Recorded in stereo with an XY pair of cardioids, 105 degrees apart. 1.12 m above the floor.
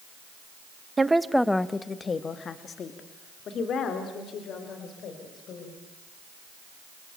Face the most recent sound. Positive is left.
turn(degrees=70)